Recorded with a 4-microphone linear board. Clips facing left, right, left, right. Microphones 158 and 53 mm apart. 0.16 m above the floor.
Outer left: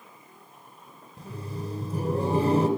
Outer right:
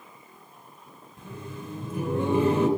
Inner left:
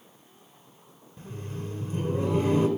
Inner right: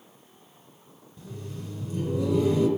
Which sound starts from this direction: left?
Laughter, at 1.2 s.